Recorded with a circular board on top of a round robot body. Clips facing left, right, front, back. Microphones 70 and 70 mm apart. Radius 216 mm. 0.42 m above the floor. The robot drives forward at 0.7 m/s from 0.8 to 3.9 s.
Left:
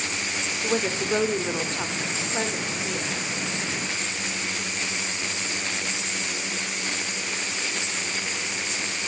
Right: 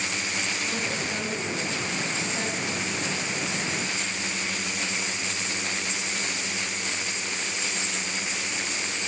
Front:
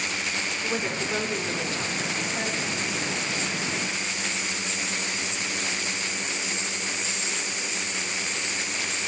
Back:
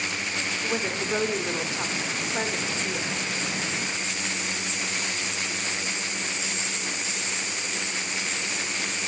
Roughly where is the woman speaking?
Left.